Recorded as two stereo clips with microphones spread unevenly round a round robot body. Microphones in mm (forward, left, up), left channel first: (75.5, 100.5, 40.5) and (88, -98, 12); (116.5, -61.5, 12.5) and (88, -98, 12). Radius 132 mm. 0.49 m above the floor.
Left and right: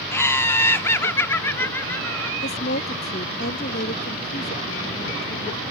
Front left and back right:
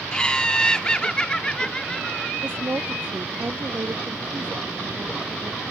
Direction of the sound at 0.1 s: 10° left.